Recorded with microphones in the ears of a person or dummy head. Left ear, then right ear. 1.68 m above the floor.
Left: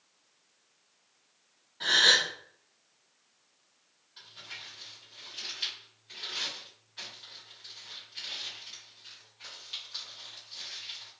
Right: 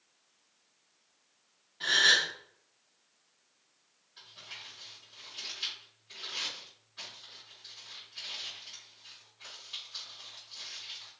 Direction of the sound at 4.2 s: 25° left (ahead or behind).